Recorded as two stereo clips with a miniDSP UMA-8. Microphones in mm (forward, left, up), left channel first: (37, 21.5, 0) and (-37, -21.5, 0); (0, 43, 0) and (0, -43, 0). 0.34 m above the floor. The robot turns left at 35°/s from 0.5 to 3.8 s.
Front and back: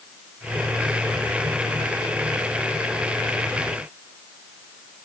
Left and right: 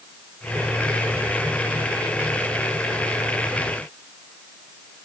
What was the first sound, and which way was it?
Only background noise.